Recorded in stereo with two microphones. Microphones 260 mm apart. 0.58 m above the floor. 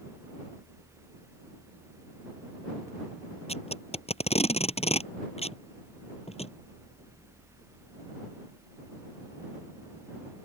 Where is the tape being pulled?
25° left (ahead or behind).